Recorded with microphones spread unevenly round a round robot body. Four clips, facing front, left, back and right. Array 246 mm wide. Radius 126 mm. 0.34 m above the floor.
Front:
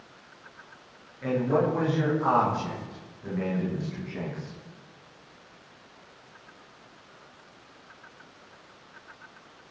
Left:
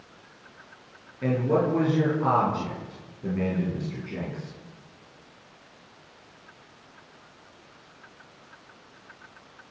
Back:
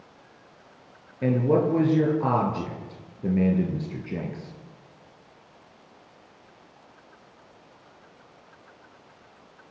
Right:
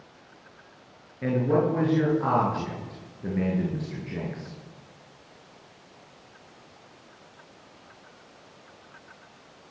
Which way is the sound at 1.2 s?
175° right.